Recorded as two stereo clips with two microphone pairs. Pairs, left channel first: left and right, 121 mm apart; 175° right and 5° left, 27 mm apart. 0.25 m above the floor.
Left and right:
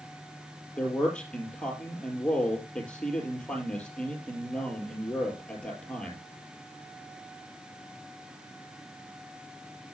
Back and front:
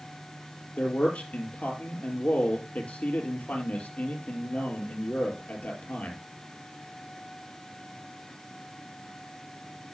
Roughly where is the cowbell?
I don't hear a cowbell.